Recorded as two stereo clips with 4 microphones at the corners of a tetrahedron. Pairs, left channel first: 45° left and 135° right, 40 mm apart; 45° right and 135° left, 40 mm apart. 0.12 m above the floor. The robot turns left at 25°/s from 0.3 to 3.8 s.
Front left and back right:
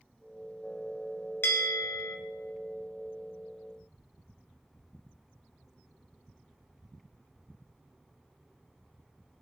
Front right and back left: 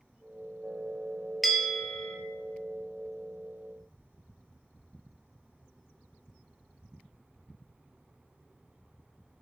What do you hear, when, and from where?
1.4 s a bell: 45° left, 0.6 m; by 2.2 s 25° left, 0.6 m